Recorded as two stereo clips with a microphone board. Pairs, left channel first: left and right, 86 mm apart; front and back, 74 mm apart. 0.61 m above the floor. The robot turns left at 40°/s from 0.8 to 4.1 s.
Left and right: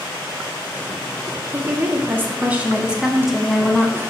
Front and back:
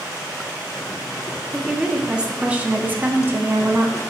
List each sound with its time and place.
1.5 s a woman speaking: 100° right, 0.6 m; by 4.0 s 165° left, 0.6 m